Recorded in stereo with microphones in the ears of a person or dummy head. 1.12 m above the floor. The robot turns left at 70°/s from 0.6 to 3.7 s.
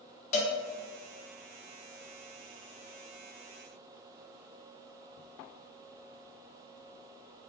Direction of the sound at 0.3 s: 45° left (ahead or behind).